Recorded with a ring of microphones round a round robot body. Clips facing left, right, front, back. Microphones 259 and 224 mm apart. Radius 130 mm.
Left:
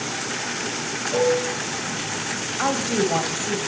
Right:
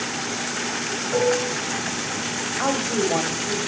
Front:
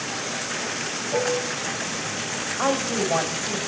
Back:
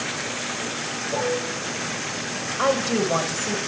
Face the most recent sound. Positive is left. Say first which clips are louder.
# left 1 dB, back 3 dB
turn(degrees=140)